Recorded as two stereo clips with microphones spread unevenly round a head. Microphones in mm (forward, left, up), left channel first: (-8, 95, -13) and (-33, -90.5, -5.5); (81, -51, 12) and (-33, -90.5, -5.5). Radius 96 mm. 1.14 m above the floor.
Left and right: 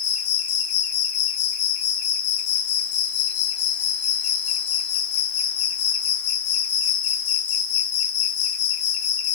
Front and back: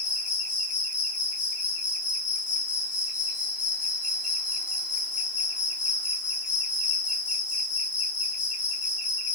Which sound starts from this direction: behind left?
An insect, at 0.0 s.